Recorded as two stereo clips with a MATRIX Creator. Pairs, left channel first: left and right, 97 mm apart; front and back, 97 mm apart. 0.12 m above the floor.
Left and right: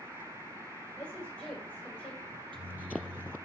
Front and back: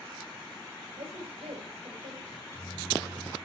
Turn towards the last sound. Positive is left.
turn(degrees=-60)